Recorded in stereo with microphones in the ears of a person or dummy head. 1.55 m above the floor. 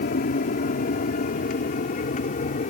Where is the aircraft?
50° left (ahead or behind); by 2.7 s 45° left (ahead or behind).